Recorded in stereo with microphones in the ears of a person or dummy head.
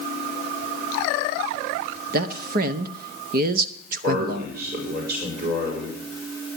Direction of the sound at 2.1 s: 50° right (ahead or behind).